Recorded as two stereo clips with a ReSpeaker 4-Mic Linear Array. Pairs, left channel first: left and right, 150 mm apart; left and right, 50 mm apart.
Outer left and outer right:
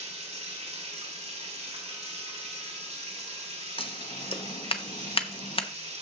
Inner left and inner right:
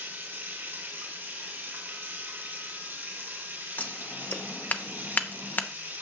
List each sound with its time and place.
0.0 s running water: 45° right (ahead or behind), 3 m
3.8 s scissors: 40° left (ahead or behind), 0.8 m